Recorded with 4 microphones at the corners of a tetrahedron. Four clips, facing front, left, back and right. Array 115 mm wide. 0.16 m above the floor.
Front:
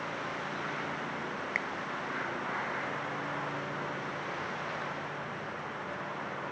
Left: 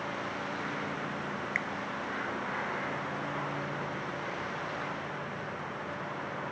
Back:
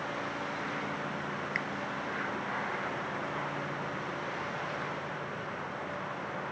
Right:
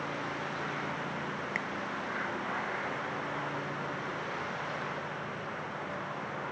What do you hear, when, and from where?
1.6 s a finger snap: 35° right